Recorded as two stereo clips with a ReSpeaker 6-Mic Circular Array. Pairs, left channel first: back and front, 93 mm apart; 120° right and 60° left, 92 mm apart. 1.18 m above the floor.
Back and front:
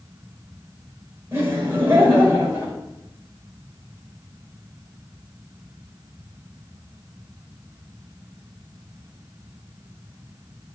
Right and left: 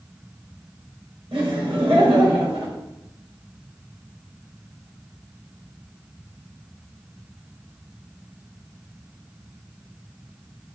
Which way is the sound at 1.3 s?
65° left.